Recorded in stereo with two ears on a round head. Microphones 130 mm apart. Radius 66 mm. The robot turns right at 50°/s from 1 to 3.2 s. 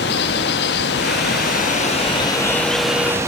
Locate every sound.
0.0 s running water: 90° left, 1.3 m; by 3.3 s 160° right, 1.3 m